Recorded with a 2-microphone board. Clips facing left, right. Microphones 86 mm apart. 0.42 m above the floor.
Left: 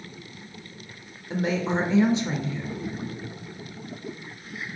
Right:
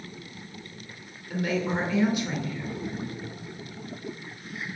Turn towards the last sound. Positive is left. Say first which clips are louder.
# left 2 dB
turn(degrees=25)  # may be behind; listen again after turning